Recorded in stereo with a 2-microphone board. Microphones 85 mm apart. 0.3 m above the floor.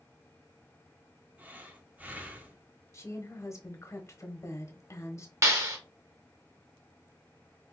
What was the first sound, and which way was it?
Breathing, 20° right (ahead or behind).